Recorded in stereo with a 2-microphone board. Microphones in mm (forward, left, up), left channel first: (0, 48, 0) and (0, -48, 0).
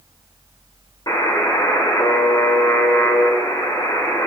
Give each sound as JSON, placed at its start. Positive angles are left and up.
{"t": 1.1, "sound": "a buzzer", "side_deg": 50, "distance_m": 1.4}